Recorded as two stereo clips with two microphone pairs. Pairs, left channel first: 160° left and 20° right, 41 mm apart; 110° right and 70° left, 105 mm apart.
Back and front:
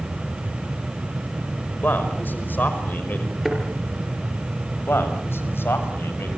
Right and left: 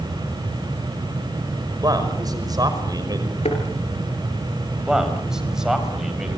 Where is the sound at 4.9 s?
155° left, 5 m.